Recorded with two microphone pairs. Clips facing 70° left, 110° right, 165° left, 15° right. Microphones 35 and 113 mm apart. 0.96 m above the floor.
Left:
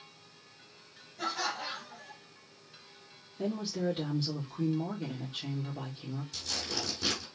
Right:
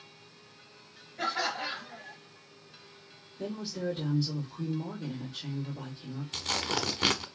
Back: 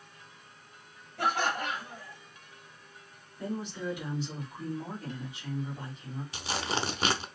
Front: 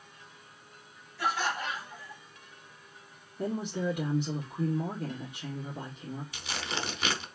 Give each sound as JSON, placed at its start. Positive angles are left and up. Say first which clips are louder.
{"t": 1.2, "sound": "laughter", "louder": "right 3 dB, back 2 dB", "azimuth_deg": -160, "distance_m": 2.5}
{"t": 3.4, "sound": "a woman speaking", "louder": "left 2 dB, front 4 dB", "azimuth_deg": 25, "distance_m": 1.8}
{"t": 6.3, "sound": "tearing paper", "louder": "right 8 dB, back 7 dB", "azimuth_deg": -140, "distance_m": 1.0}